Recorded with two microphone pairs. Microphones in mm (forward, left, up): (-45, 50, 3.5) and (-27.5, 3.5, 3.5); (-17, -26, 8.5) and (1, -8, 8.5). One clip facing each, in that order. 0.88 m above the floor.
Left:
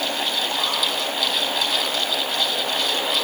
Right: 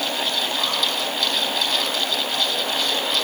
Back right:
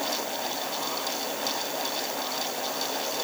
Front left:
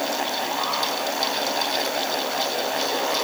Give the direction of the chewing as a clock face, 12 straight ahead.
No chewing in this recording.